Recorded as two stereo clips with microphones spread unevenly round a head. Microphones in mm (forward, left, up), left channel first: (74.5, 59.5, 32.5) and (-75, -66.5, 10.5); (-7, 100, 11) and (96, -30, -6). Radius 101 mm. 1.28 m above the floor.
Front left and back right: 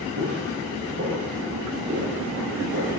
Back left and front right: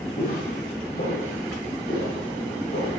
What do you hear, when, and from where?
0.2 s footsteps: straight behind, 5 m